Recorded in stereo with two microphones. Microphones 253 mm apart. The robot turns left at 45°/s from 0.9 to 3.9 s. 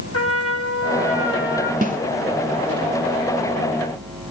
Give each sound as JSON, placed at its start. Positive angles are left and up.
{"t": 0.1, "sound": "a trumpet", "azimuth_deg": 80, "distance_m": 1.2}
{"t": 1.8, "sound": "a snare drum", "side_deg": -35, "distance_m": 0.9}